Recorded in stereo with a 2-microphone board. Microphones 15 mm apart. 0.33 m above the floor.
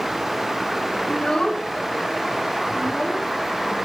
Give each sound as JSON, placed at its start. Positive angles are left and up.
{"t": 1.1, "sound": "a child speaking", "side_deg": 55, "distance_m": 1.8}